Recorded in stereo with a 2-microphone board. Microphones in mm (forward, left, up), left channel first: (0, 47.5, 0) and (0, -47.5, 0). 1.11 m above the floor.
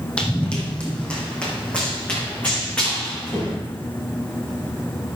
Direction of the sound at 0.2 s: 10° left (ahead or behind).